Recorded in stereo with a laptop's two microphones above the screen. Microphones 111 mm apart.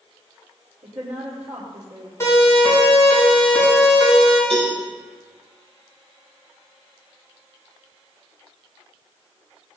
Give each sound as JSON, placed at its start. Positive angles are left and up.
{"t": 0.8, "sound": "a woman speaking", "side_deg": -80, "distance_m": 3.0}
{"t": 2.2, "sound": "a siren", "side_deg": 25, "distance_m": 6.0}
{"t": 4.5, "sound": "a cowbell", "side_deg": -60, "distance_m": 8.0}